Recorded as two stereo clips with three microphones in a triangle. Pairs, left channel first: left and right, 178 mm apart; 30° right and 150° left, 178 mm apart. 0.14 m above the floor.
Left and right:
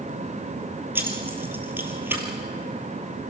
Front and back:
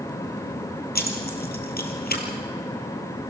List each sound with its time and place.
0.9 s keys jangling: 10° right, 2.5 m